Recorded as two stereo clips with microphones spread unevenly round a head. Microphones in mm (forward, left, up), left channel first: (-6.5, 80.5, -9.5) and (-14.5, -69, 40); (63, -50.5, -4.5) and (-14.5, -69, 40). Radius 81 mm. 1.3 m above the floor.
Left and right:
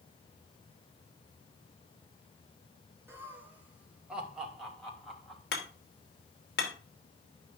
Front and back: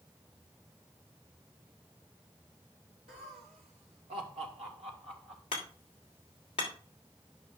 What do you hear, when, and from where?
3.1 s laughter: 175° right, 2 m; by 5.4 s 170° left, 3 m
5.5 s hammering: 55° left, 2.5 m